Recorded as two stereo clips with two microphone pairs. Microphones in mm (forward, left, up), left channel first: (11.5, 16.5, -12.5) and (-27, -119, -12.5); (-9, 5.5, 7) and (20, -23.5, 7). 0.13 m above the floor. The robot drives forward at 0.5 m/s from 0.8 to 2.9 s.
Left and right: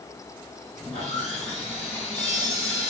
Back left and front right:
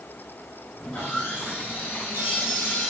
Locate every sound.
0.8 s sawing: 165° left, 2.5 m; by 2.9 s 170° left, 3.5 m